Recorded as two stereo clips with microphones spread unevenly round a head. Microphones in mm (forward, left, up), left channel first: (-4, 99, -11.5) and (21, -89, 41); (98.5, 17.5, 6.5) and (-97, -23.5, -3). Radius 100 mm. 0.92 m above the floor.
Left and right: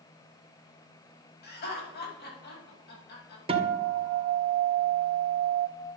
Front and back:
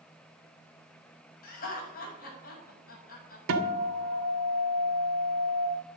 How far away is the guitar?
About 1.9 m.